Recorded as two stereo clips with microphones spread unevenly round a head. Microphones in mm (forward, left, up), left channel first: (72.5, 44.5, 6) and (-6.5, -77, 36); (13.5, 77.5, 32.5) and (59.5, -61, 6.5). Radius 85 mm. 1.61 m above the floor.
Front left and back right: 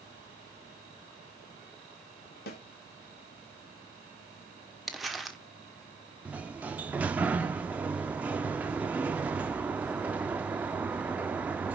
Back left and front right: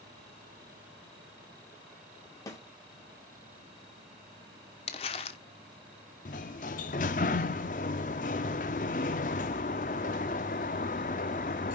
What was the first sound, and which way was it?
A snare drum, 45° left.